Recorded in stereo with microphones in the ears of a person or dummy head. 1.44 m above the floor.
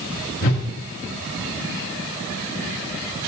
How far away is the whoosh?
About 1.2 m.